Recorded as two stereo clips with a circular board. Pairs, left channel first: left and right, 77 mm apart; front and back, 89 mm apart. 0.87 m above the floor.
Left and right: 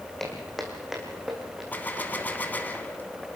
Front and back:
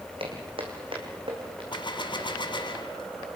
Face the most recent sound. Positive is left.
turn(degrees=25)